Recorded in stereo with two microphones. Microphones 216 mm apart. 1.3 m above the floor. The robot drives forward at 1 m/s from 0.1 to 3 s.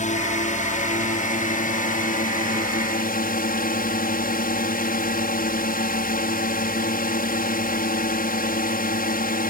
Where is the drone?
35° left (ahead or behind); by 9.5 s 45° left (ahead or behind).